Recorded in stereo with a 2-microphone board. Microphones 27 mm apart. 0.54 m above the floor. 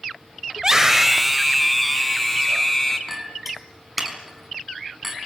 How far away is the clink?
About 4 m.